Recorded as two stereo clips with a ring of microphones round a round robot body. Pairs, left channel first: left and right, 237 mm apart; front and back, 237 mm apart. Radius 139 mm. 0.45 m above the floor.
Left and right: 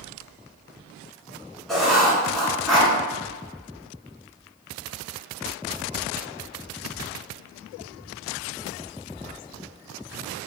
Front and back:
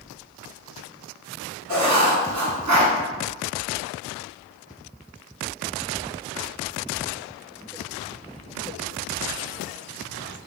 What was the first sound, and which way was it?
Writing, straight behind.